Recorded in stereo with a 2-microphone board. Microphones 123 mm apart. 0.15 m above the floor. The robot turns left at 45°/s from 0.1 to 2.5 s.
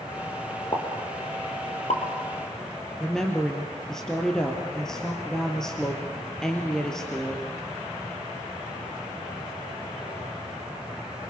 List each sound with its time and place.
0.7 s a pop: 40° left (ahead or behind), 3.5 m; by 2.0 s 70° left (ahead or behind), 3.5 m
3.0 s a woman speaking: 5° left (ahead or behind), 3 m